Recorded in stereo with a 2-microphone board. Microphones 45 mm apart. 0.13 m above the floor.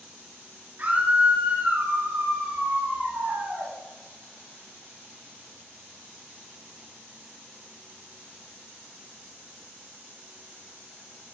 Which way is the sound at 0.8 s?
40° right (ahead or behind).